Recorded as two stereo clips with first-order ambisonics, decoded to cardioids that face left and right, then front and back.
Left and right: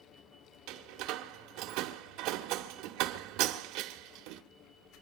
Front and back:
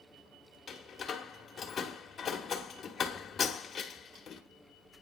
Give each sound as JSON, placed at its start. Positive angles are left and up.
{"t": 0.7, "sound": "a door slam", "azimuth_deg": -70, "distance_m": 1.7}